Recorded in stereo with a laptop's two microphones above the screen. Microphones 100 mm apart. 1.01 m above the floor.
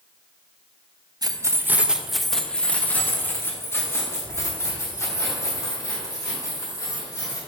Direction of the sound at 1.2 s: 40° right (ahead or behind).